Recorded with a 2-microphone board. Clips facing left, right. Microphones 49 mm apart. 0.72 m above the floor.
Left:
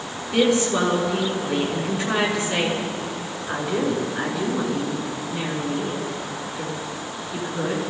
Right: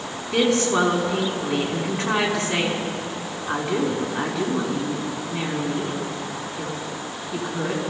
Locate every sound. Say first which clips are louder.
0.3 s a woman speaking: even; 50° right (ahead or behind), 5.5 m